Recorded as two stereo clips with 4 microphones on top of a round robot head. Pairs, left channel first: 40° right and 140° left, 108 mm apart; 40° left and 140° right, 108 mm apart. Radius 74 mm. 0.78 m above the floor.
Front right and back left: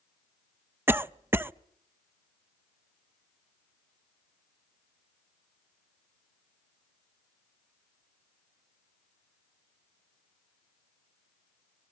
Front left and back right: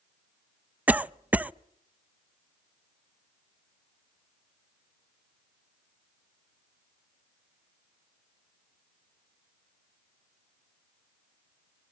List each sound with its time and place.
0.9 s a cough: 165° left, 0.6 m